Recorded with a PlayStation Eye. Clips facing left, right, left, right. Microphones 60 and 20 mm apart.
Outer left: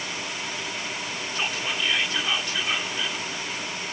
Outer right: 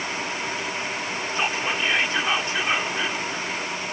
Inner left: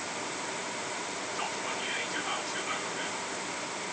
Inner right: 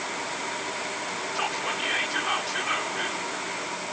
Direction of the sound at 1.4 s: 30° right (ahead or behind).